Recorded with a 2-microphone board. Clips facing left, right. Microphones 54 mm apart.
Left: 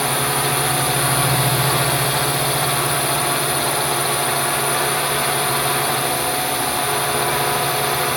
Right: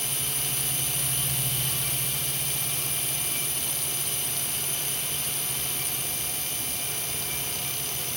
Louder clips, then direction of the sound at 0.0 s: Left 16 dB; 85° left.